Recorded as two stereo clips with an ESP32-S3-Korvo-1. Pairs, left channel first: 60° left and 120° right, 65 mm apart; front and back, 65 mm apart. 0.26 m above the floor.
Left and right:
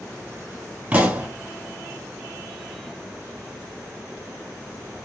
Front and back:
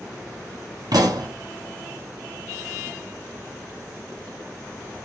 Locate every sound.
0.9 s a pop: 170° left, 1.6 m